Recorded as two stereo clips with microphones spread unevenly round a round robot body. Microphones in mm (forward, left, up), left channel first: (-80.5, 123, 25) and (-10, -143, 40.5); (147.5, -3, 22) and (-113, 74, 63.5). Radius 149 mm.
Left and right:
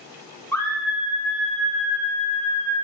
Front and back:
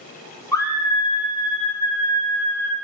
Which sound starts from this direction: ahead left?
A scream, at 0.5 s.